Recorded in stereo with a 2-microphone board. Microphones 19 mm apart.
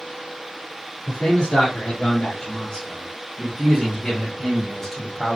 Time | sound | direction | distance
1.1 | a man speaking | 70° left (ahead or behind) | 3 m